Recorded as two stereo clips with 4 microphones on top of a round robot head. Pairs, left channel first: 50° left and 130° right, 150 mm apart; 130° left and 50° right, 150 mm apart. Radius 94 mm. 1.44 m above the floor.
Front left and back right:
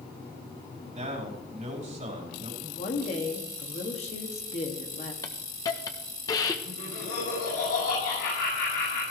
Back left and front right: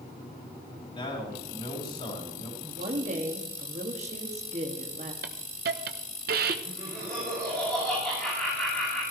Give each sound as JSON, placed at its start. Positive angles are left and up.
{"t": 0.9, "sound": "a man speaking", "azimuth_deg": -170, "distance_m": 4.5}
{"t": 2.6, "sound": "a woman speaking", "azimuth_deg": 0, "distance_m": 2.0}
{"t": 5.2, "sound": "a hiss", "azimuth_deg": -20, "distance_m": 0.9}
{"t": 6.7, "sound": "laughter", "azimuth_deg": 50, "distance_m": 6.5}